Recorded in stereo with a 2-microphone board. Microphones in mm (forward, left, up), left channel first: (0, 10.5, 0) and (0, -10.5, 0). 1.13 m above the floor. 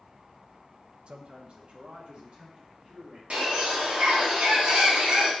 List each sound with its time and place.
1.1 s a man speaking: 45° right (ahead or behind), 0.7 m; by 3.2 s 55° right (ahead or behind), 4 m
3.3 s a bird: 70° right (ahead or behind), 1.9 m